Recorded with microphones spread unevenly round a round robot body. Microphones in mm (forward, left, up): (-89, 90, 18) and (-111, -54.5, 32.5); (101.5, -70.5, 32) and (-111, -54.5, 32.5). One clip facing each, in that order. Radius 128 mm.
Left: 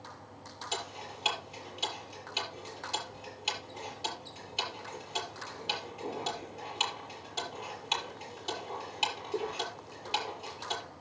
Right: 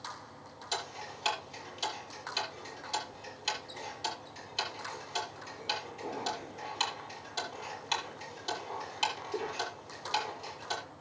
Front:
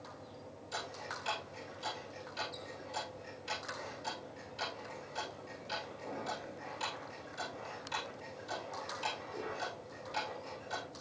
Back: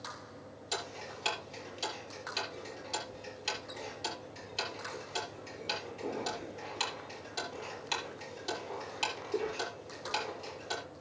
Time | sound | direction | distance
0.7 | ticking | 160° left | 6.5 m